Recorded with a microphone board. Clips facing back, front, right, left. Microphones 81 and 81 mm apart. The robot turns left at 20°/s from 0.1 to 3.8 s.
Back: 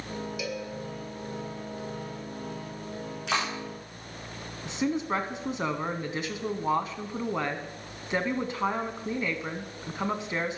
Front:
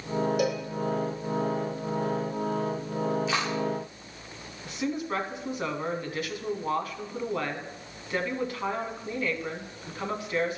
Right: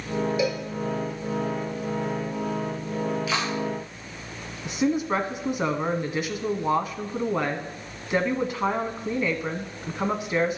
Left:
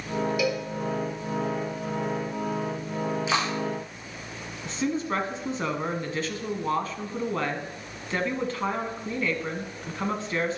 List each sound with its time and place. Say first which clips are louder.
0.4 s a cowbell: front 7 dB, right 1 dB; 35° right, 2 m; by 0.7 s 40° right, 2 m
3.3 s a clap: even, left 1 dB; 155° left, 6.5 m; by 3.5 s 150° left, 6.5 m
4.7 s a woman speaking: back 2 dB, right 4 dB; 145° right, 1.2 m